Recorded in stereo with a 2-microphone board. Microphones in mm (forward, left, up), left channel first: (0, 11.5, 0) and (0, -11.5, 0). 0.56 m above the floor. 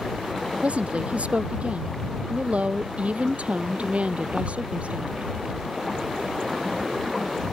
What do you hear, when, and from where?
0.6 s a woman speaking: 60° right (ahead or behind)